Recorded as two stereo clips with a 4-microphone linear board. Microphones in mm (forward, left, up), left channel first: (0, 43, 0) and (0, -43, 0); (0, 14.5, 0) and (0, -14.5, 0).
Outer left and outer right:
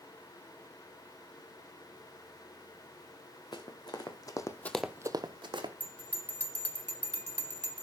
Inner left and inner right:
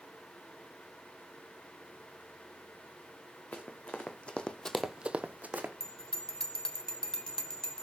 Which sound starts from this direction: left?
Running footsteps, at 3.5 s.